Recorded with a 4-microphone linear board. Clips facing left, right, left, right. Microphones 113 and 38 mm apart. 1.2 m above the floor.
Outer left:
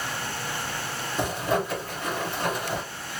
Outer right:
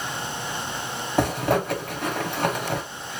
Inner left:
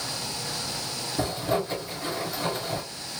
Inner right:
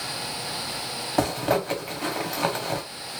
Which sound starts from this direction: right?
A zipper, at 1.2 s.